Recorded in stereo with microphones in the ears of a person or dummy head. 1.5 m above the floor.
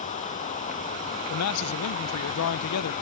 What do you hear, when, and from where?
0.0 s running water: 35° left (ahead or behind)
1.3 s a man speaking: 80° left